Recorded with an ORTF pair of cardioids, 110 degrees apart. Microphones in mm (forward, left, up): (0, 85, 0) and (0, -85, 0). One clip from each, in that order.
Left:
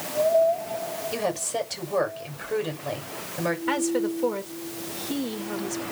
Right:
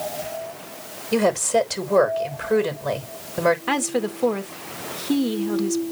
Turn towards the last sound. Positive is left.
turn(degrees=-40)